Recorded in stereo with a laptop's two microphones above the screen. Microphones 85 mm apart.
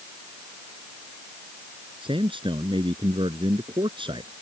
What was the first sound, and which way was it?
A man speaking, 90° right.